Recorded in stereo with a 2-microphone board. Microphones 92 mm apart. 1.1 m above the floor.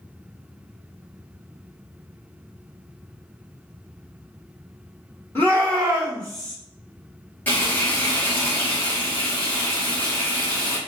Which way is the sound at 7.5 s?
20° left (ahead or behind).